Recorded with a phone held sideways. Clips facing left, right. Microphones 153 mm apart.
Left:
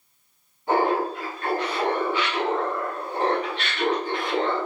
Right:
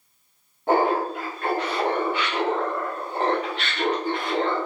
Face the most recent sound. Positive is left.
turn(degrees=-55)  # may be behind; listen again after turning